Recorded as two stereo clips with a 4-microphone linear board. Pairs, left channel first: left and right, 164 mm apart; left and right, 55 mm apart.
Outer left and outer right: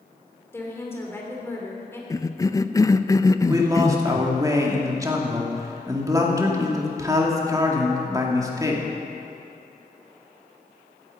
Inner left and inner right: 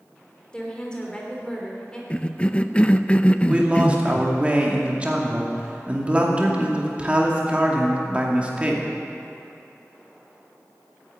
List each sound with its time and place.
0.5 s a woman speaking: 15° left (ahead or behind), 3.5 m
2.1 s a cough: 20° left (ahead or behind), 0.5 m
3.5 s a man speaking: 20° right (ahead or behind), 2.5 m